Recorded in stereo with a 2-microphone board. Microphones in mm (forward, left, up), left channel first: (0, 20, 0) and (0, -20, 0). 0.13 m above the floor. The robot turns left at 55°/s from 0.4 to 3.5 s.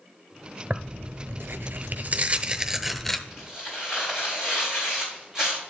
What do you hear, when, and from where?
0.7 s tearing paper: 50° right, 0.8 m; by 3.2 s 170° left, 0.8 m
3.3 s tearing paper: 5° right (ahead or behind), 5.5 m; by 5.6 s 20° right (ahead or behind), 5.5 m